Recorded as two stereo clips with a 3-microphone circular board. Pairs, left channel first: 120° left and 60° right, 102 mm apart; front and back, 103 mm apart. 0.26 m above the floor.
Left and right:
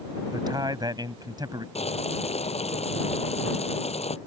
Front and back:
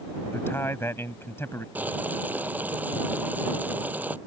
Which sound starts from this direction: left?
Boiling, at 1.8 s.